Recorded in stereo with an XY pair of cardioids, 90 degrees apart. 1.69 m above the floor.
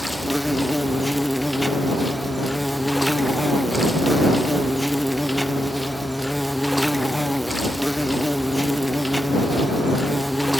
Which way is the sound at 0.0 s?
5° left.